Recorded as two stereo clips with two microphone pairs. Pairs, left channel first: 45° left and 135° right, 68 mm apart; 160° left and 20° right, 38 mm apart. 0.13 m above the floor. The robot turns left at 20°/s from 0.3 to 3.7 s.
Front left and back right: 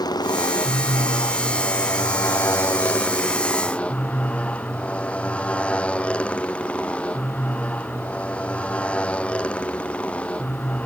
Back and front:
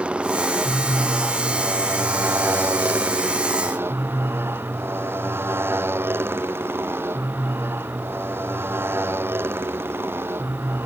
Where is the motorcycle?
40° left; by 10.9 s 30° right.